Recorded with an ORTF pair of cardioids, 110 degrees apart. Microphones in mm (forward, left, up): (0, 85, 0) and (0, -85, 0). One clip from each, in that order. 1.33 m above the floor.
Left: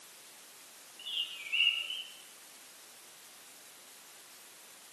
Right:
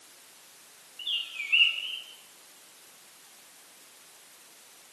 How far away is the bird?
About 7 m.